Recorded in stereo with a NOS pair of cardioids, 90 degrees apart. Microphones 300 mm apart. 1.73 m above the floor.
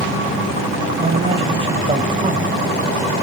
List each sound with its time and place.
1.0 s a man speaking: 20° right, 1.5 m